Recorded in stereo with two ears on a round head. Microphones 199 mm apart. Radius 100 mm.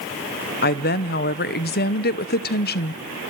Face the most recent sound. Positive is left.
turn(degrees=45)  # may be behind; listen again after turning